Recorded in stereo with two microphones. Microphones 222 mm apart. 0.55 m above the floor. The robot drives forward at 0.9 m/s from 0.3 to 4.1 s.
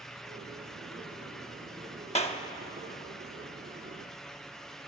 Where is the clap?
30° left (ahead or behind), 0.9 m.